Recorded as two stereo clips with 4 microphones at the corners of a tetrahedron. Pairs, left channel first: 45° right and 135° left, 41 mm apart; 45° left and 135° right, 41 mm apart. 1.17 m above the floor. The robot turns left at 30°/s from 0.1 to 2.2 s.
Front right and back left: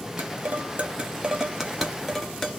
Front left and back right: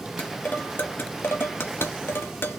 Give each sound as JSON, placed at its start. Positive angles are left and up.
{"t": 0.2, "sound": "dishes clattering", "azimuth_deg": 100, "distance_m": 0.9}